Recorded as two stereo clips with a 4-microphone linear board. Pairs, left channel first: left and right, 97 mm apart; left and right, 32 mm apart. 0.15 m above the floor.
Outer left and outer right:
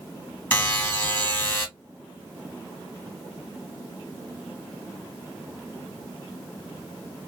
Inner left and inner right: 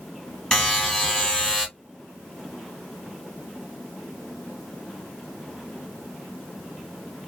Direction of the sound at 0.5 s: 20° left (ahead or behind).